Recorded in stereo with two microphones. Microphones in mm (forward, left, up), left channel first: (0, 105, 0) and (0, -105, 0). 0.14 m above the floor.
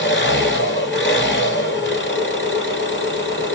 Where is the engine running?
60° left (ahead or behind), 1.7 m.